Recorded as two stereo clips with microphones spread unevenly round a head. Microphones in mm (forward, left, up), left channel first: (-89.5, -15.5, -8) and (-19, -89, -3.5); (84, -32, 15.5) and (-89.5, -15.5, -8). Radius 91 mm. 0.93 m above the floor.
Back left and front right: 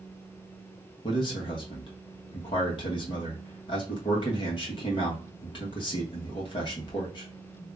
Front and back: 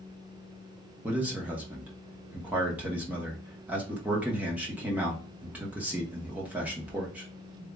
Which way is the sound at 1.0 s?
100° left.